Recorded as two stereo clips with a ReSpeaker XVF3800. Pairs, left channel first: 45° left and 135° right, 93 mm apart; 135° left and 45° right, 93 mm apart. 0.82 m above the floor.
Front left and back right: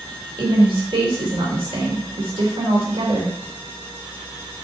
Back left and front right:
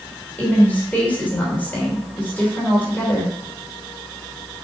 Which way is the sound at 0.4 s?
155° right.